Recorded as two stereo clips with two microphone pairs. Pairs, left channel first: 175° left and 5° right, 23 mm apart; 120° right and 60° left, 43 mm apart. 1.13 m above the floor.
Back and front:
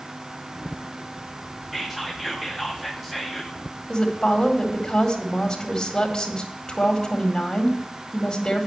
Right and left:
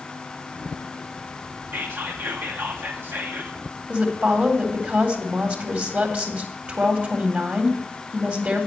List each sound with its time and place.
1.7 s whispering: 75° left, 0.8 m
3.9 s a woman speaking: 110° left, 1.9 m